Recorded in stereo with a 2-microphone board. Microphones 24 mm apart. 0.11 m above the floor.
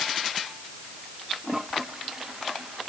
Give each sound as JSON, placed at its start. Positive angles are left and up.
{"t": 1.4, "sound": "a toilet flushing", "side_deg": -20}